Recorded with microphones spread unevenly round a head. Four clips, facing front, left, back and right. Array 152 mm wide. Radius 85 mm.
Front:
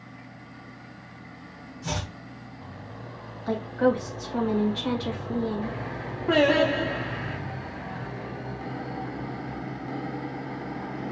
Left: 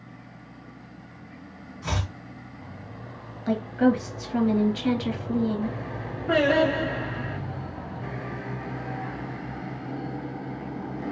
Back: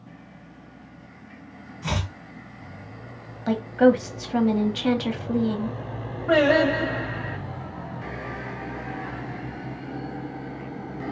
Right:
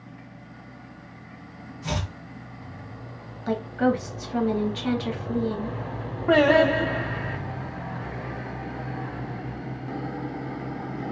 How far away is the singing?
About 1.5 m.